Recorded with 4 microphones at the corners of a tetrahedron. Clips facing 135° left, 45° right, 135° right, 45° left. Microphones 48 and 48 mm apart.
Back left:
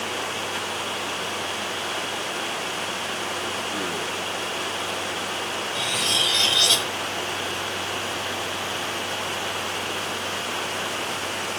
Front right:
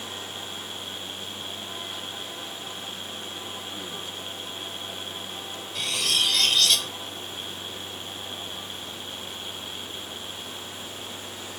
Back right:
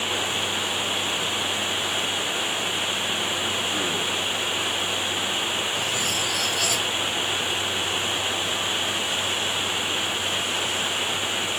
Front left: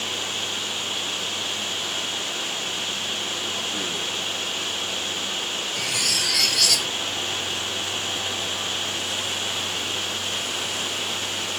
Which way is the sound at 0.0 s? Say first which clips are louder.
Back left 9 dB, back right 3 dB; 155° left.